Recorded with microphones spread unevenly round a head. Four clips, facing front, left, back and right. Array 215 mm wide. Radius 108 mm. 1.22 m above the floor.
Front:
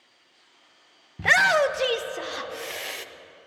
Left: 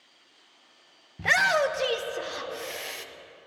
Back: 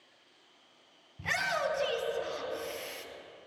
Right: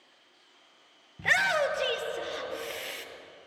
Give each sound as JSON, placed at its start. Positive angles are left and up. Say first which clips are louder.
{"t": 1.2, "sound": "a shout", "louder": "left 3 dB, front 12 dB", "azimuth_deg": 15, "distance_m": 0.7}